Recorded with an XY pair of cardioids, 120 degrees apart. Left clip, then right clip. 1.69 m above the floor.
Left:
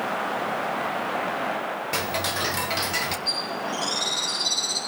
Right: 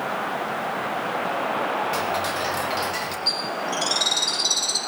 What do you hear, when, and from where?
1.9 s ticking: 35° left, 1.3 m
3.3 s a bird: 45° right, 5 m